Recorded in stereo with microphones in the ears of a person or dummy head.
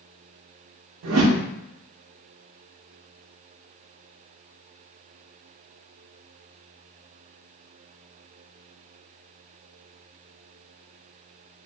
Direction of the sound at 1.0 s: 80° right.